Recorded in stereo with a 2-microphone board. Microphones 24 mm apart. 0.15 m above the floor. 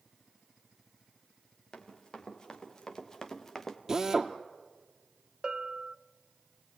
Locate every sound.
1.7 s running footsteps: 35° left (ahead or behind), 4.5 m; by 3.8 s 15° left (ahead or behind), 2 m
3.9 s a drill: 20° right (ahead or behind), 1.5 m
5.4 s a bell: 40° right (ahead or behind), 0.5 m